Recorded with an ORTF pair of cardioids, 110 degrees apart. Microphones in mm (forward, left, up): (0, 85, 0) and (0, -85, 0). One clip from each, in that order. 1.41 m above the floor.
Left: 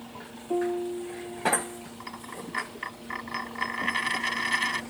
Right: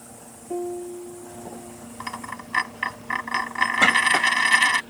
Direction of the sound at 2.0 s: 50° right.